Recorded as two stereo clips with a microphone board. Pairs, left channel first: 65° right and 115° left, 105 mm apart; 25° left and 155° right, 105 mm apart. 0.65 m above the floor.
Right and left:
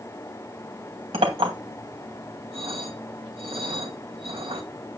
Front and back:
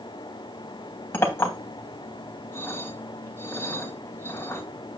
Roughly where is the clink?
Left.